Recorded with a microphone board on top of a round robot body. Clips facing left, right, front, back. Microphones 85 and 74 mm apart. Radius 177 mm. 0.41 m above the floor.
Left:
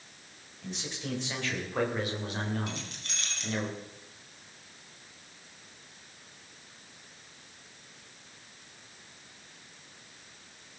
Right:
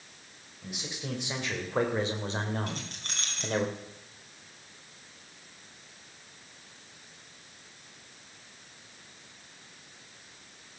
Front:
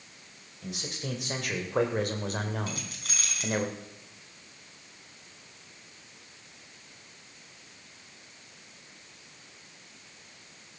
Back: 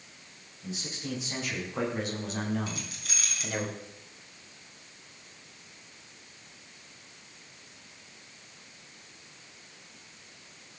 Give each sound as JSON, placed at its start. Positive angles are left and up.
{"t": 0.6, "sound": "a man speaking", "azimuth_deg": -10, "distance_m": 3.5}
{"t": 2.7, "sound": "keys jangling", "azimuth_deg": -45, "distance_m": 4.0}